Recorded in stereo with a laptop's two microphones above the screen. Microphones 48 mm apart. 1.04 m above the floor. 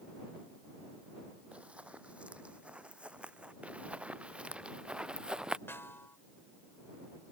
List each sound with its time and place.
1.5 s running footsteps: 30° right (ahead or behind); by 3.5 s 25° right (ahead or behind)
3.6 s running footsteps: 30° right (ahead or behind); by 5.6 s 20° right (ahead or behind)
5.7 s a snare drum: 55° left (ahead or behind)